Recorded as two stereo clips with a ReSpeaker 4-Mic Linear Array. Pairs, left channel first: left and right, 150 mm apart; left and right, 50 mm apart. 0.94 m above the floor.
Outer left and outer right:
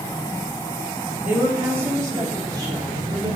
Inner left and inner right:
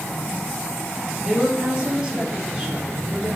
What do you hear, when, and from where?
1.2 s a woman speaking: 10° right (ahead or behind), 1.6 m; by 3.4 s 30° right (ahead or behind), 2.5 m